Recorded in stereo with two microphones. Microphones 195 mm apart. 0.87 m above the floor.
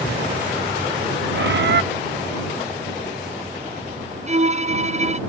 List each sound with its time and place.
1.3 s a bird: 65° right (ahead or behind)
4.3 s a violin: 35° right (ahead or behind)